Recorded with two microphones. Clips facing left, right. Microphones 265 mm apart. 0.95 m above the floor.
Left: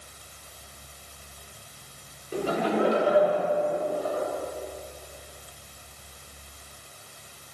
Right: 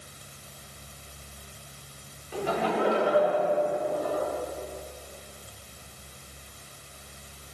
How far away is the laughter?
About 3 m.